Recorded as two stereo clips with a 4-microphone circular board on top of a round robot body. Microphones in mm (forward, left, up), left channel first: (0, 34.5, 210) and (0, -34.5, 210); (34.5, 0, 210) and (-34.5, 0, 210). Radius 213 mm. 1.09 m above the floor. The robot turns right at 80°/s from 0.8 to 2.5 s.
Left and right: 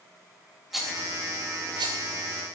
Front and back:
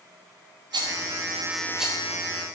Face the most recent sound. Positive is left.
turn(degrees=-40)